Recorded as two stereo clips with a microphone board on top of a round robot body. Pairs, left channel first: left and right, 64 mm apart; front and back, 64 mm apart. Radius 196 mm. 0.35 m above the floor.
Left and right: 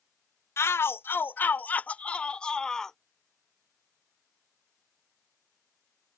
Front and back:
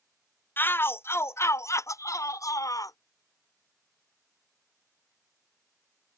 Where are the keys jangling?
I don't hear keys jangling.